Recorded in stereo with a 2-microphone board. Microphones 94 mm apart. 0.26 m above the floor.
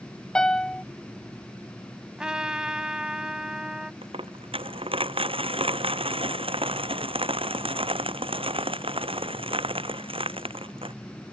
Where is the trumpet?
10° right (ahead or behind).